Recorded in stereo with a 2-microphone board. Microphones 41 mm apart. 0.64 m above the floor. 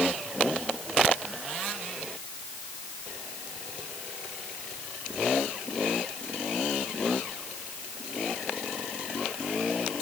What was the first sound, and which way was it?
Only background noise.